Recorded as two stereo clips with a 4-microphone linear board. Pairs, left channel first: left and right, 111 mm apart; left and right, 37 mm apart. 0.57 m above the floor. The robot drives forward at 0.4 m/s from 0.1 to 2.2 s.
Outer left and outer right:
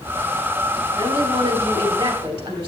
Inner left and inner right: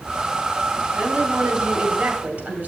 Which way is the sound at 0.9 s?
50° right (ahead or behind).